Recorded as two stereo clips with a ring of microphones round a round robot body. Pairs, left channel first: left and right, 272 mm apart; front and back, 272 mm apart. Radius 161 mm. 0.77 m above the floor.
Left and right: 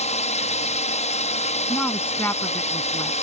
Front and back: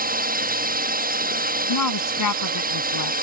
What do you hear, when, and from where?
0.0 s a drone: 140° left
1.7 s a woman speaking: 5° left